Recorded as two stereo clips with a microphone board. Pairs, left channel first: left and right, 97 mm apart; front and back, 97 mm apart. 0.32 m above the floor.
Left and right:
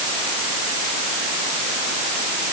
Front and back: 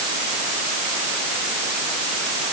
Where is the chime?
I don't hear a chime.